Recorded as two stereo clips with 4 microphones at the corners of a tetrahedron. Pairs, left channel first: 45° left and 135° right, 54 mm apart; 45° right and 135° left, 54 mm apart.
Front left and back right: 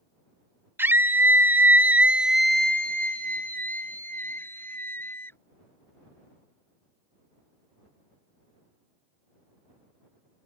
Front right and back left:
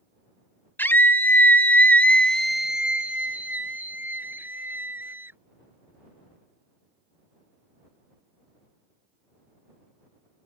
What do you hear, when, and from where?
0.8 s a scream: 90° right; by 5.4 s 90° left